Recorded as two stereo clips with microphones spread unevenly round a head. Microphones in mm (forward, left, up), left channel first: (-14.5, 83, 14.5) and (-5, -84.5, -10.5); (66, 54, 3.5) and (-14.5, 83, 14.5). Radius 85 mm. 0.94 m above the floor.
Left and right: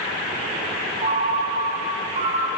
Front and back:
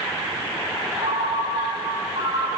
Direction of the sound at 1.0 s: 140° right.